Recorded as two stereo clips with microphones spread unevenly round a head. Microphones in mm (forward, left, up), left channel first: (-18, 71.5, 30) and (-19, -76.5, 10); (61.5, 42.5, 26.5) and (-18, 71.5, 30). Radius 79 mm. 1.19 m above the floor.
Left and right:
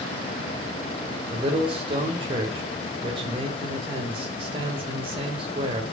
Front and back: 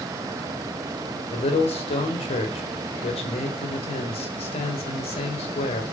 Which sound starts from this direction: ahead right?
A man speaking, at 1.3 s.